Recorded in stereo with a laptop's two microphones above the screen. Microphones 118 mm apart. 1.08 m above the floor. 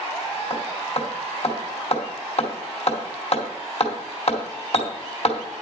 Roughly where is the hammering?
Left.